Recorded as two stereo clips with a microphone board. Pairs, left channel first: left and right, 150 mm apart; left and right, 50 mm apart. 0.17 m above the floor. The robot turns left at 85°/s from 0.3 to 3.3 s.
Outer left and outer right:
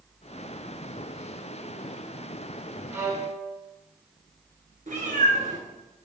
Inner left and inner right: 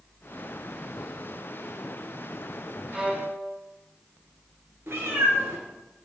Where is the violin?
20° right, 0.9 m; by 3.5 s 55° right, 0.9 m.